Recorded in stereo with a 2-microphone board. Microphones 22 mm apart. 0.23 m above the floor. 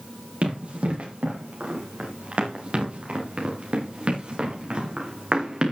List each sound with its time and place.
0.4 s running footsteps: 65° right (ahead or behind), 8 m; by 5.7 s 40° right (ahead or behind), 6 m